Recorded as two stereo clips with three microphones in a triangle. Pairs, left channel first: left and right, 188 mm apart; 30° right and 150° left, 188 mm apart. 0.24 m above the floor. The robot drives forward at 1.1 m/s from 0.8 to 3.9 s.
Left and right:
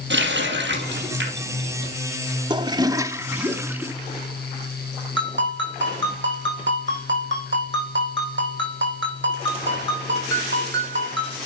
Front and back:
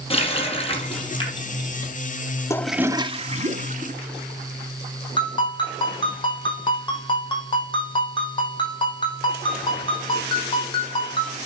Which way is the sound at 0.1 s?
90° right.